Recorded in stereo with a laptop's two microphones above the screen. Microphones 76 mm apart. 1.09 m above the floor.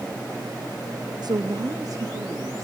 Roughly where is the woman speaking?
Right.